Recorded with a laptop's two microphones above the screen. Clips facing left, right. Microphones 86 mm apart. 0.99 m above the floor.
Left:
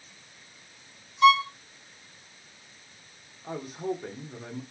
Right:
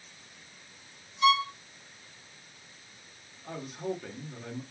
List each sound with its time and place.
1.2 s a violin: 50° left (ahead or behind), 1.4 m
3.4 s a man speaking: 20° left (ahead or behind), 0.7 m